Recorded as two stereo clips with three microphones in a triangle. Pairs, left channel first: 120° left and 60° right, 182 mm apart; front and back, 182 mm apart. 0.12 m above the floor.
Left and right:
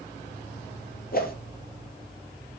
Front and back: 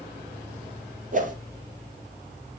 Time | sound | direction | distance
1.1 | a whoosh | 145° left | 2.5 m